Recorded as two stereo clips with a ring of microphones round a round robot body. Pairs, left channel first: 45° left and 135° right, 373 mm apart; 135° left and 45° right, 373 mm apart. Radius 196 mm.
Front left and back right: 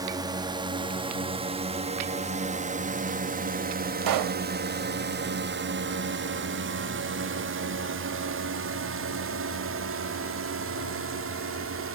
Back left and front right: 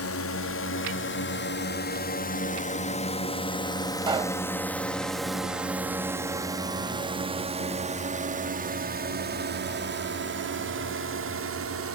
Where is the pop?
120° right.